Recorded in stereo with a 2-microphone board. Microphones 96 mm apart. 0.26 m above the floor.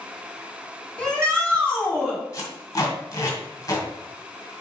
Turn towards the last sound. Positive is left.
turn(degrees=40)  # may be behind; listen again after turning